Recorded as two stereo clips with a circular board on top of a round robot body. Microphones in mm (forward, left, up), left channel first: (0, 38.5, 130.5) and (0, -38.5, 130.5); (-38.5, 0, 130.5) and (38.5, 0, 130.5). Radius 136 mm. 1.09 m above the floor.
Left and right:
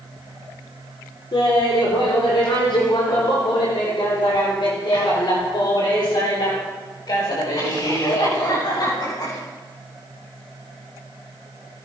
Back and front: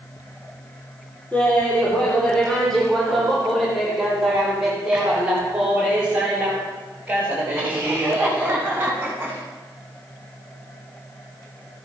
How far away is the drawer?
I don't hear a drawer.